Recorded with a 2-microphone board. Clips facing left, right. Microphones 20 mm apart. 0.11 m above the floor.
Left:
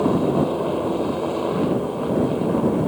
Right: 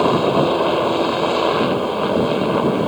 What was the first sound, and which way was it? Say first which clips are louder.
A helicopter: right 4 dB; 55° right (ahead or behind).